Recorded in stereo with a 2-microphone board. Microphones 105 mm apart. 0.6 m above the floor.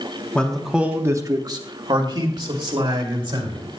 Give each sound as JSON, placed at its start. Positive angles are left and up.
{"t": 0.3, "sound": "a man speaking", "side_deg": 10, "distance_m": 0.9}